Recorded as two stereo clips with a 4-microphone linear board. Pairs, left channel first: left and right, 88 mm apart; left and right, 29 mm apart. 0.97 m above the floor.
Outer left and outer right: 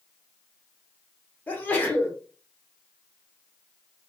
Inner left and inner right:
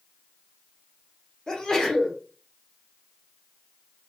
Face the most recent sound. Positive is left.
turn(degrees=20)  # may be behind; listen again after turning